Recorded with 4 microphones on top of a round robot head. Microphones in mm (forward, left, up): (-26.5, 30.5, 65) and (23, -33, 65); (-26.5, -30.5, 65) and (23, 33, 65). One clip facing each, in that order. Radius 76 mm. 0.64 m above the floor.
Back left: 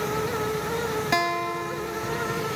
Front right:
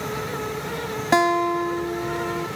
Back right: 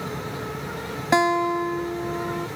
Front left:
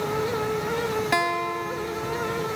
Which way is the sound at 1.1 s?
80° right.